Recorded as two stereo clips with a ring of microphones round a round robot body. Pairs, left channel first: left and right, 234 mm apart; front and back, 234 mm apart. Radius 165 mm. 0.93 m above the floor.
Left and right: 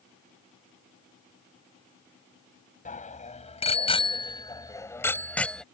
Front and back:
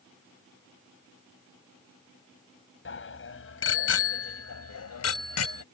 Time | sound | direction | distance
2.9 | a bicycle bell | 35° left | ?